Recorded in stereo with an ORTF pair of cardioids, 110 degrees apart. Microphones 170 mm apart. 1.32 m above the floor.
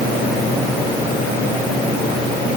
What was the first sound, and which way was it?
Only background noise.